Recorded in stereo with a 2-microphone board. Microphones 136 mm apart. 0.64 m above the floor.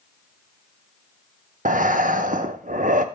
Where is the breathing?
75° right (ahead or behind), 0.7 m.